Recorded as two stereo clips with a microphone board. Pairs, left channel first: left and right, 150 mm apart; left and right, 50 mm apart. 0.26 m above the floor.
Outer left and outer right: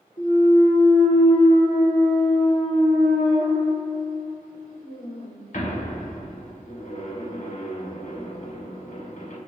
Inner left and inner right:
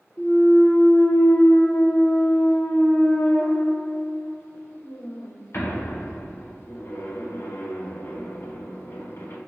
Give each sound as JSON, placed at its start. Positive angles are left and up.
{"t": 0.2, "sound": "a clunk", "side_deg": 60, "distance_m": 0.9}